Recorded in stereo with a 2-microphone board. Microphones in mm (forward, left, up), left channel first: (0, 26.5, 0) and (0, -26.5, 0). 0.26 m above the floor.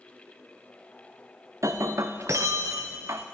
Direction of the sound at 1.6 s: 65° right (ahead or behind).